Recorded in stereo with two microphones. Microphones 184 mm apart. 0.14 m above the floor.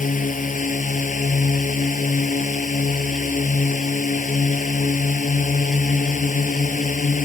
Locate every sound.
0.0 s a drone: 50° left (ahead or behind)